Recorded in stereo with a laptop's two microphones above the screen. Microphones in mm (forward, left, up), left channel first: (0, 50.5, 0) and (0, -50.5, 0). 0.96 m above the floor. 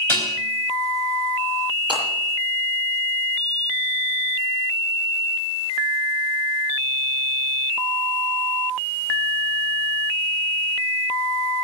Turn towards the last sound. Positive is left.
turn(degrees=5)  # may be behind; listen again after turning